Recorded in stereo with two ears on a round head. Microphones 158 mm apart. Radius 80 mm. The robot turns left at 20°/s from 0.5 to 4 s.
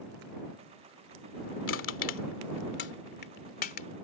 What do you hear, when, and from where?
1.7 s crushing: 85° left; by 3.9 s 45° left (ahead or behind)